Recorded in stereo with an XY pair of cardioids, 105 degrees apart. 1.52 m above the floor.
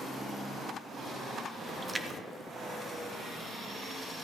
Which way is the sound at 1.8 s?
25° right.